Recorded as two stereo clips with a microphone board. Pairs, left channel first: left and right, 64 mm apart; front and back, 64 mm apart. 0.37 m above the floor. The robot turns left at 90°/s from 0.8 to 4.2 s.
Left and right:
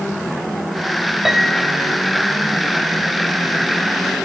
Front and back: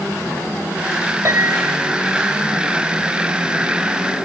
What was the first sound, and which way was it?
A piano, 170° right.